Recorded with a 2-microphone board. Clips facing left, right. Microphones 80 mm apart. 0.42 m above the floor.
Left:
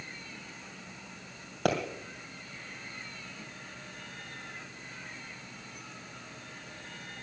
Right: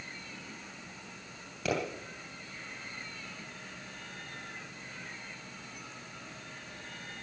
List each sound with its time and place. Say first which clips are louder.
1.6 s a pop: left 4 dB; 60° left (ahead or behind), 2.5 m